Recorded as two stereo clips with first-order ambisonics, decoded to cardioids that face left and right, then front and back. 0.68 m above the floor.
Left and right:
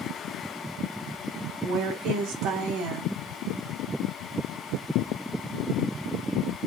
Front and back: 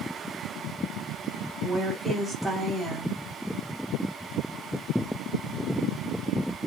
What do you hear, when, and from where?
1.6 s a woman speaking: 95° right, 1.7 m